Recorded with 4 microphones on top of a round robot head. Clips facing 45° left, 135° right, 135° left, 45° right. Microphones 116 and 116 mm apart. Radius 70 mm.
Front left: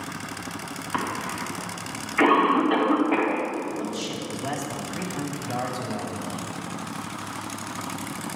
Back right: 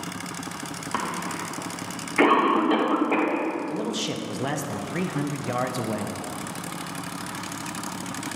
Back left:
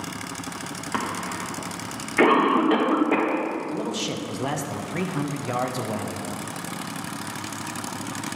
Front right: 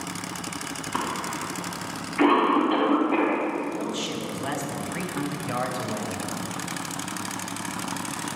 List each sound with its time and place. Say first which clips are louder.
0.9 s a cough: front left 1 dB, back left 1 dB; 165° left, 1.5 m
3.7 s a man speaking: back right 2 dB, back left 1 dB; 165° right, 0.8 m